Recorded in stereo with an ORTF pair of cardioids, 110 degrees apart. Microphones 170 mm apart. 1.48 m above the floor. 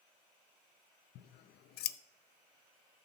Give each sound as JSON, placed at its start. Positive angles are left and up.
{"t": 1.1, "sound": "scissors", "azimuth_deg": 65, "distance_m": 0.5}